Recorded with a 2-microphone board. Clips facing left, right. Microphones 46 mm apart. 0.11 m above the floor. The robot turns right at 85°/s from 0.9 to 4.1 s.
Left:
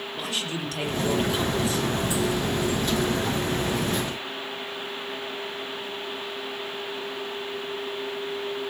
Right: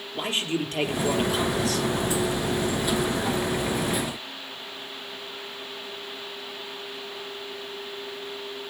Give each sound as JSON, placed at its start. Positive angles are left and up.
{"t": 0.1, "sound": "a man speaking", "azimuth_deg": -35, "distance_m": 3.0}